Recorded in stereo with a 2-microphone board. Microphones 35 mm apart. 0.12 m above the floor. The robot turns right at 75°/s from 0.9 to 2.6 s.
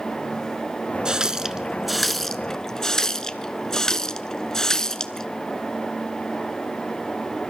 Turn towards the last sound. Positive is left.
turn(degrees=15)  # may be behind; listen again after turning